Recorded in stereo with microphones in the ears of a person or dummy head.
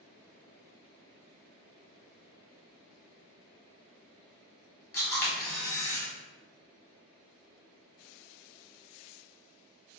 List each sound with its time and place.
4.9 s a camera shutter: 15° left (ahead or behind), 1.5 m